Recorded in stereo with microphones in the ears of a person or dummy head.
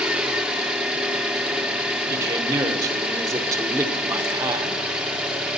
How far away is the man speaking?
About 0.9 m.